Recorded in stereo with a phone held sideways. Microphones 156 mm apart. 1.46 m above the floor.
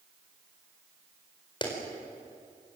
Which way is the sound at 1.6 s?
30° left (ahead or behind).